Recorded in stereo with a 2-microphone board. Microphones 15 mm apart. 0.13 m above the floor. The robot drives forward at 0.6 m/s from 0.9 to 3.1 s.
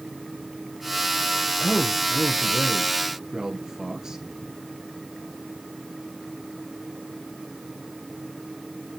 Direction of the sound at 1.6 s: 55° right (ahead or behind).